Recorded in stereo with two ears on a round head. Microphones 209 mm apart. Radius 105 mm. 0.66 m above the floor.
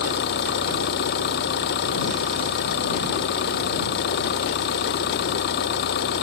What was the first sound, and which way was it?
An engine running, 50° left (ahead or behind).